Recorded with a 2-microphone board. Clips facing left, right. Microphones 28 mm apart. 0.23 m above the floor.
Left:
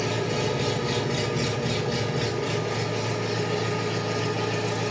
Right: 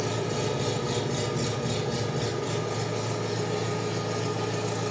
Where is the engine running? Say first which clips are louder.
Left 3 dB; 60° left (ahead or behind), 3.5 m.